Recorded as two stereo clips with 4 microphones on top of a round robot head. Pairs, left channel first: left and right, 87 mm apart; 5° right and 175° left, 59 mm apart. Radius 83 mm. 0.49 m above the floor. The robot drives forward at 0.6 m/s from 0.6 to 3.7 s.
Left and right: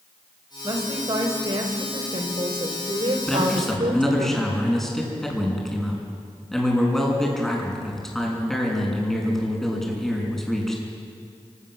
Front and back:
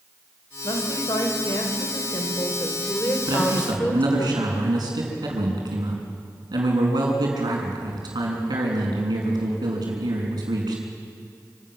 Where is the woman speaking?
35° right, 3.5 m; by 4.3 s 70° right, 2.5 m.